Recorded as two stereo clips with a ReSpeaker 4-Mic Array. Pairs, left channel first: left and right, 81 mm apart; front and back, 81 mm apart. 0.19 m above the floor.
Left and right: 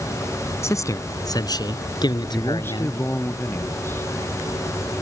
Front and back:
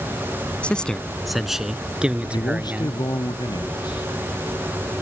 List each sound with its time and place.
0.6 s a man speaking: 65° left; by 3.2 s 110° left
2.2 s a man speaking: 30° left